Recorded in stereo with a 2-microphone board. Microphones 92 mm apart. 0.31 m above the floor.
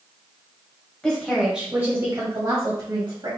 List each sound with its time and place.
1.0 s a woman speaking: 10° left (ahead or behind), 1.3 m; by 3.3 s 60° right (ahead or behind), 1.9 m